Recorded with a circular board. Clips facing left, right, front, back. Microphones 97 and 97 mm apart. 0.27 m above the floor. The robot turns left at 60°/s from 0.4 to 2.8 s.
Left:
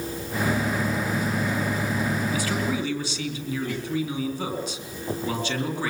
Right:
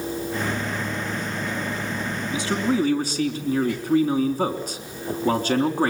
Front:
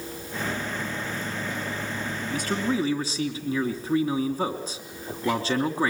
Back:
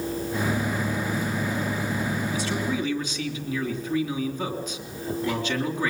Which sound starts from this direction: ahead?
A man speaking, at 2.3 s.